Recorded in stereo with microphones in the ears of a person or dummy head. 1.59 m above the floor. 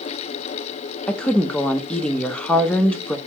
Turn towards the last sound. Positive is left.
turn(degrees=5)  # may be behind; listen again after turning